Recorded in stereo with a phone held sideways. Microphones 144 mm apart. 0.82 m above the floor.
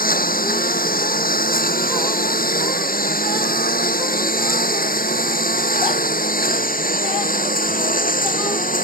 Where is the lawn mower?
80° left; by 8.8 s 75° left (ahead or behind).